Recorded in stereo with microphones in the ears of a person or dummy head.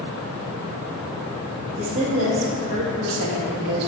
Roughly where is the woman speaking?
Right.